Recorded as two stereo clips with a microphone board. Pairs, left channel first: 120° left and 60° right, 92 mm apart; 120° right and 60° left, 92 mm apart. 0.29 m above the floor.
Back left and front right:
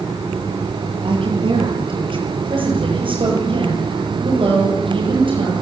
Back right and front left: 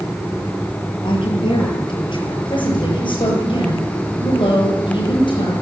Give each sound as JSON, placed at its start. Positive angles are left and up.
{"t": 1.0, "sound": "a woman speaking", "azimuth_deg": -90, "distance_m": 7.5}
{"t": 2.5, "sound": "a woman speaking", "azimuth_deg": -85, "distance_m": 8.5}